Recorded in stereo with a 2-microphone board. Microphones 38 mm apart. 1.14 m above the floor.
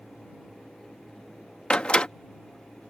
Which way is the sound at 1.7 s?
30° left (ahead or behind).